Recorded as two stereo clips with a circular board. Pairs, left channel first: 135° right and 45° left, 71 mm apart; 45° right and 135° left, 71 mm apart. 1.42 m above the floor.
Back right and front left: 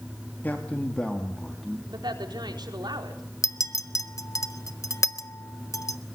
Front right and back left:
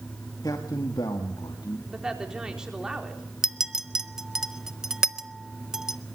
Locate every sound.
0.4 s a man speaking: 70° right, 2.5 m; by 1.8 s 45° right, 2.5 m
1.9 s a woman speaking: 55° left, 4 m
3.4 s a clink: 145° right, 0.8 m